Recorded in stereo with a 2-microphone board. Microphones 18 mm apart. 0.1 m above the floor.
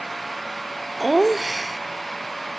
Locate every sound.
1.0 s laughter: 5° right (ahead or behind)